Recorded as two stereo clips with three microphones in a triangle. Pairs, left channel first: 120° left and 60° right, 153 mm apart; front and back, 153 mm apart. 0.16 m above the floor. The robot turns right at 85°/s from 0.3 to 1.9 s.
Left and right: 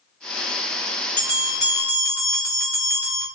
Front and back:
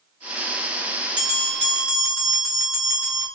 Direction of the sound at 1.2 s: 175° left.